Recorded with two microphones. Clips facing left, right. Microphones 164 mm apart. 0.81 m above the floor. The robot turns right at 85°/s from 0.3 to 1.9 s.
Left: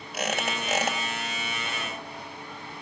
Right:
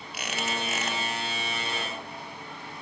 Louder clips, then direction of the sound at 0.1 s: Left 3 dB; 45° left.